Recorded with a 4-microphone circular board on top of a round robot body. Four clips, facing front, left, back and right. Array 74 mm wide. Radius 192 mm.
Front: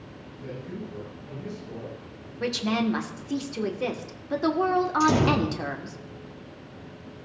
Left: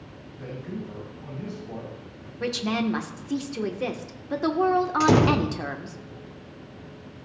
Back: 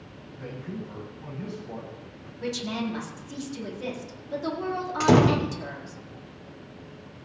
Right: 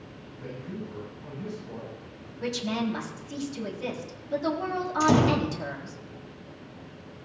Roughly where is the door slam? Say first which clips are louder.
Even, back 6 dB; behind left.